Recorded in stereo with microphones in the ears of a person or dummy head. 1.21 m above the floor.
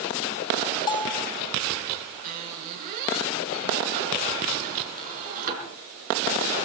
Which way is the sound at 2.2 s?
45° right (ahead or behind).